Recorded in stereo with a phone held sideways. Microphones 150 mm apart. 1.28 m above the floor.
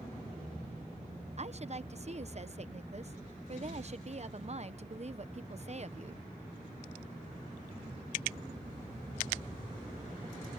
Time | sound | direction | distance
1.4 | a woman speaking | 50° right (ahead or behind) | ?